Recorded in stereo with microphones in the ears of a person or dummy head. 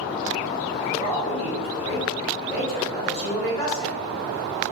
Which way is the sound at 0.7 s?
50° left (ahead or behind).